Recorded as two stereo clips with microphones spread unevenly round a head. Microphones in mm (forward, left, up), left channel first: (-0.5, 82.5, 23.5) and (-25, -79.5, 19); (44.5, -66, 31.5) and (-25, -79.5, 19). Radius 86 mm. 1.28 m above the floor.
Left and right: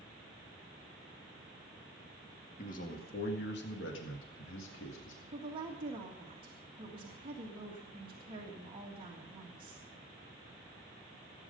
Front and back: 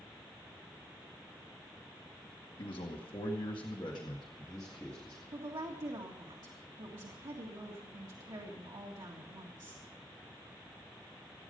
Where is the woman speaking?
160° right, 1.9 m.